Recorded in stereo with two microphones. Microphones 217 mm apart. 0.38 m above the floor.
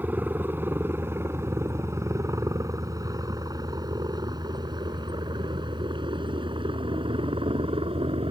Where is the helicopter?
10° right (ahead or behind); by 8.3 s 25° right (ahead or behind).